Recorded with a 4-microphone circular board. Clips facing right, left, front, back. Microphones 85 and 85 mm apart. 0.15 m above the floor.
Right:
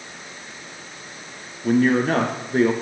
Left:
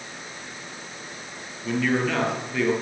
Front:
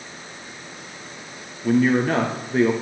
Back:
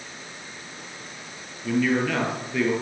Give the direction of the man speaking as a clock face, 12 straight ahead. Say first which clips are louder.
Right 6 dB, front 4 dB; 2 o'clock.